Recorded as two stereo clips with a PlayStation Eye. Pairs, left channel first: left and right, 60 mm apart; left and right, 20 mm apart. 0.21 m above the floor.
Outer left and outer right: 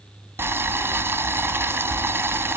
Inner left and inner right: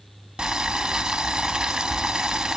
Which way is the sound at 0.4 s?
45° right (ahead or behind).